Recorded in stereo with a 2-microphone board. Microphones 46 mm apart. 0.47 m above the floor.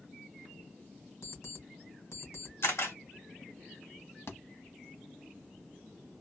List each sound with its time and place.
1.2 s an alarm clock: 80° left, 2.5 m
2.6 s a camera shutter: 70° left (ahead or behind), 2 m
4.3 s a thud: 70° left (ahead or behind), 0.9 m